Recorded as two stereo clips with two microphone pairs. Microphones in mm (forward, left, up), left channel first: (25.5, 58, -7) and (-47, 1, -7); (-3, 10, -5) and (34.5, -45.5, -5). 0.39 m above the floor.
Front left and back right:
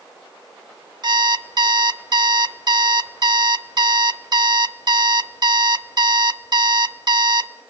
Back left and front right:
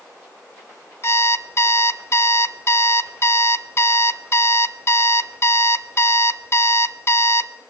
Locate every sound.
1.0 s an alarm clock: 175° left, 0.6 m